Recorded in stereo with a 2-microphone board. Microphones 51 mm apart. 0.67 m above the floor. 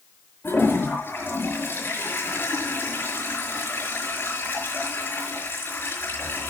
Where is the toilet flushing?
45° left (ahead or behind), 5.5 m.